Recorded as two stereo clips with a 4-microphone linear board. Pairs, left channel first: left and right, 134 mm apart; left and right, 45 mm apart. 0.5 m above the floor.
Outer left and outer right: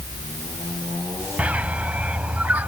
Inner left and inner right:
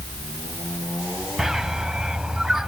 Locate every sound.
1.4 s a bird: 10° right (ahead or behind)